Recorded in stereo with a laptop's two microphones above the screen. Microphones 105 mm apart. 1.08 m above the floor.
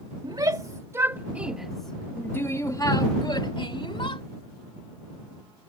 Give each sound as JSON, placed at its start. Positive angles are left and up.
{"t": 0.2, "sound": "a shout", "side_deg": -45}